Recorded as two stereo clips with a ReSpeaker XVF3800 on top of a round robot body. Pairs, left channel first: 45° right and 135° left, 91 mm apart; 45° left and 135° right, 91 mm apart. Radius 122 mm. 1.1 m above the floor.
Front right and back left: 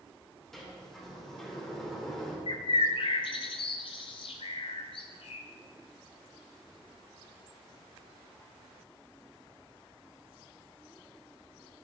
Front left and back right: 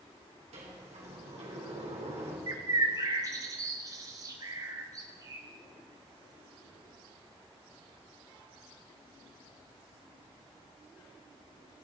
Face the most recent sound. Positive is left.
turn(degrees=-80)